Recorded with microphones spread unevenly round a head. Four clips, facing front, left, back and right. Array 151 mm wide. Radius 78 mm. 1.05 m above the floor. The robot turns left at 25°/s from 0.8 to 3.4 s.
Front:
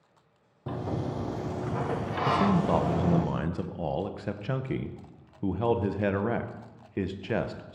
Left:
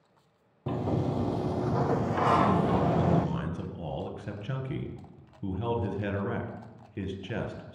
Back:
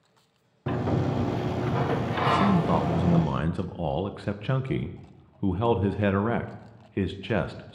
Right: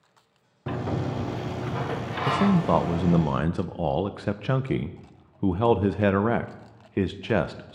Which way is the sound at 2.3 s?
85° right.